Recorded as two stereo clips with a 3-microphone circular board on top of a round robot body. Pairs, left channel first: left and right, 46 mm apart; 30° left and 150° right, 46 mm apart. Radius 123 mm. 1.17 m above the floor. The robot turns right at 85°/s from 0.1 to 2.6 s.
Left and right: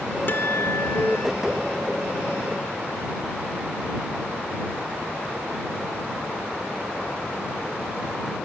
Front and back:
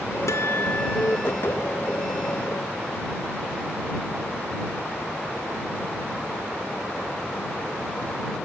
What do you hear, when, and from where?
0.3 s a guitar: 45° left; by 1.3 s 130° left